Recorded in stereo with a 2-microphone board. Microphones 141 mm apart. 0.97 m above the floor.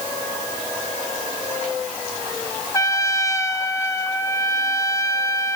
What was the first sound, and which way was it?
A trumpet, 20° left (ahead or behind).